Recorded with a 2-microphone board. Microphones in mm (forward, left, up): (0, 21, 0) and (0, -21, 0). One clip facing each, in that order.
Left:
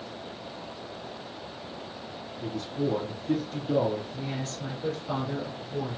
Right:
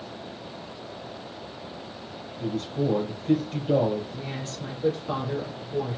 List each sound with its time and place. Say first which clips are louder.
2.4 s a man speaking: right 3 dB; 50° right (ahead or behind), 2.5 m
4.1 s a woman speaking: even; 20° right (ahead or behind), 2.5 m